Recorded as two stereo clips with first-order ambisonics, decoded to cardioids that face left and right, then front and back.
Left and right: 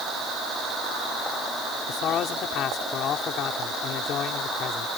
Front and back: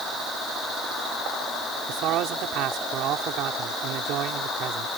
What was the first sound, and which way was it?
A man speaking, 140° left.